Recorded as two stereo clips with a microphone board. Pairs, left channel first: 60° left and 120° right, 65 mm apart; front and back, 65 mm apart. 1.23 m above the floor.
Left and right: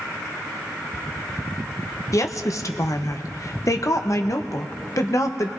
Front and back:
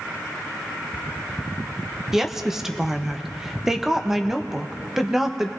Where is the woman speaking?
95° left, 0.8 m.